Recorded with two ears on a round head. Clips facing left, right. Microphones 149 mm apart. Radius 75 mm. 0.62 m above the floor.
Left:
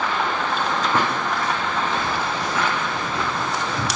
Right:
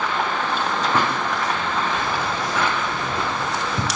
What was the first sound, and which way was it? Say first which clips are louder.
Keys jangling: even; 15° right (ahead or behind).